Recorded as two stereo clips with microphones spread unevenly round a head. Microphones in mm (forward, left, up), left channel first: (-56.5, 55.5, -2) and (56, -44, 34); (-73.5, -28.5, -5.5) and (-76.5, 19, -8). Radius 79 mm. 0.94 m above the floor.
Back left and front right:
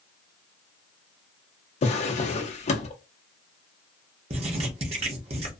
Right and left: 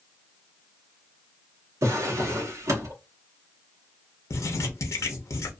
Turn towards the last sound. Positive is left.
turn(degrees=-95)